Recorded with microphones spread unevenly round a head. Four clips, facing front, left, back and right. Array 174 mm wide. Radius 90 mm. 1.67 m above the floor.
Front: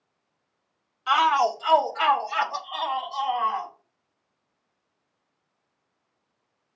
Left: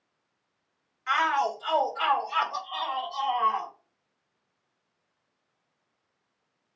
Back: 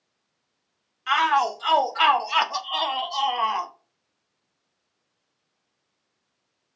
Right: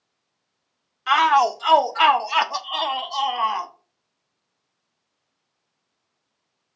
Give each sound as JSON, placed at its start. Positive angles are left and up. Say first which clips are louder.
{"t": 1.1, "sound": "a shout", "louder": "right 9 dB, front 1 dB", "azimuth_deg": -75, "distance_m": 1.0}